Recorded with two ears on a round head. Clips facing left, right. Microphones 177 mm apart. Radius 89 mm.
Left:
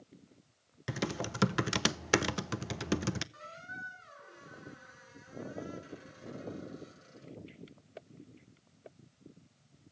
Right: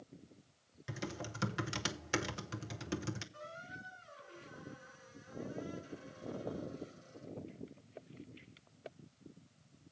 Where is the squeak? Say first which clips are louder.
Even; 70° left (ahead or behind), 6.5 m.